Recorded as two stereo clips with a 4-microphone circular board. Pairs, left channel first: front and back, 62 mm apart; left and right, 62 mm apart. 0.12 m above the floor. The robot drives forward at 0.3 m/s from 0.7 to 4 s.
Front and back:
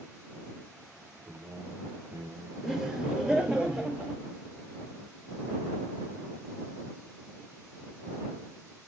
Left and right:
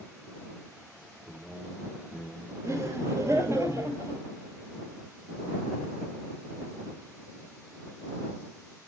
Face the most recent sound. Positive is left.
turn(degrees=-115)